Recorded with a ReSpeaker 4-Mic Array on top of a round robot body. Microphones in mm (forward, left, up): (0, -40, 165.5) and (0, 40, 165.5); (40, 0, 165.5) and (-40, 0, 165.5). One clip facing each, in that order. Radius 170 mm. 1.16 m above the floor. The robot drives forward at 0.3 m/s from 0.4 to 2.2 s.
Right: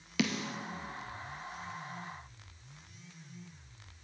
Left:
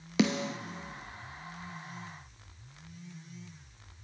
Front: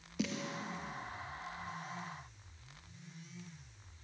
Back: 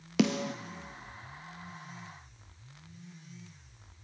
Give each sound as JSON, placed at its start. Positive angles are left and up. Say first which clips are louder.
{"t": 0.2, "sound": "a snare drum", "louder": "left 5 dB, back 10 dB", "azimuth_deg": 155, "distance_m": 0.7}